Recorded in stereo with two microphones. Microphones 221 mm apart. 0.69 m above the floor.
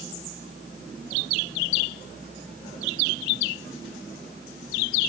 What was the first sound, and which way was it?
Only background noise.